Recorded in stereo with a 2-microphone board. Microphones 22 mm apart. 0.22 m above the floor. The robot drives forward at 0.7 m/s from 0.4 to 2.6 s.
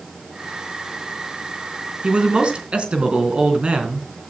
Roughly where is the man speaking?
Right.